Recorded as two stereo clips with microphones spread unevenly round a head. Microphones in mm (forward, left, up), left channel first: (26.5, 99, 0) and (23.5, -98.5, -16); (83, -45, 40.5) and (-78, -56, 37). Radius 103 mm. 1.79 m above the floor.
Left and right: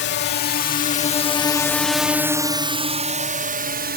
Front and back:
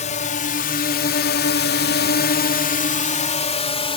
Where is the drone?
55° left; by 4.0 s 50° right.